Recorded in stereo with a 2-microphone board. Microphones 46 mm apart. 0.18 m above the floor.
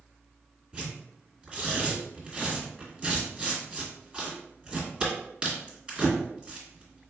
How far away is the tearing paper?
About 1.6 m.